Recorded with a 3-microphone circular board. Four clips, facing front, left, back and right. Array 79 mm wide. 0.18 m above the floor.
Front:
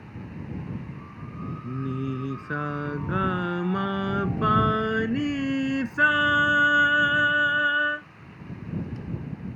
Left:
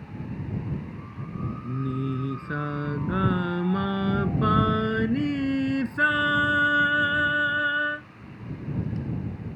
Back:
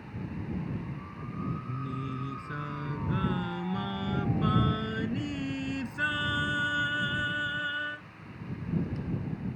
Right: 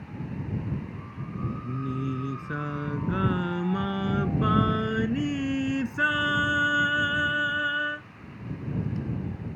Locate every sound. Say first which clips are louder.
1.6 s singing: left 3 dB, front 6 dB; 15° left